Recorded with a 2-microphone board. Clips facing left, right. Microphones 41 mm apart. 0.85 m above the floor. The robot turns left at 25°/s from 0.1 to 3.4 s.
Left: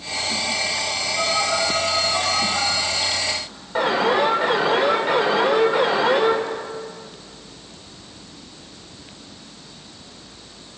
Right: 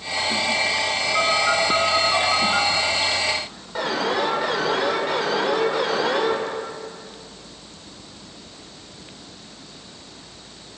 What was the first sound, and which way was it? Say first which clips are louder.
A phone buzzing: right 2 dB; 85° right.